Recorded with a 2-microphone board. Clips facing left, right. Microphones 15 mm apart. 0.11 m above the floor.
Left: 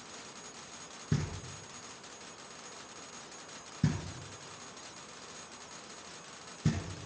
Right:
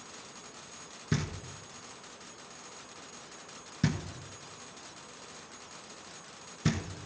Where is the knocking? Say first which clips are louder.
Right 2 dB; 35° right (ahead or behind), 1.6 m.